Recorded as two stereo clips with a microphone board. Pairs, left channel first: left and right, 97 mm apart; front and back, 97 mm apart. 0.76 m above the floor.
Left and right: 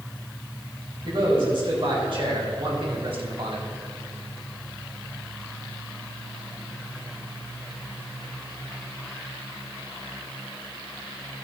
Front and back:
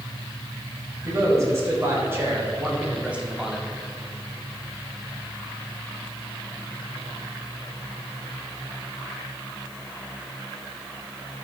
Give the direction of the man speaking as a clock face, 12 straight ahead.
4 o'clock.